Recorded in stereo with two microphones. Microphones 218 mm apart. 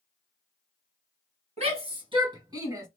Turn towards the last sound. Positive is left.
turn(degrees=-15)  # may be behind; listen again after turning